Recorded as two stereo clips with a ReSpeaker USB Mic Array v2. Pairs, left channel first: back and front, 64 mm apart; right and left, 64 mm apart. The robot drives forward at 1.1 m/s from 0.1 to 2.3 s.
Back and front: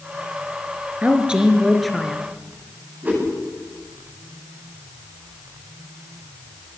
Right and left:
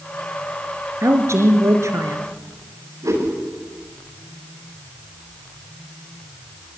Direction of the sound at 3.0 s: 65° left.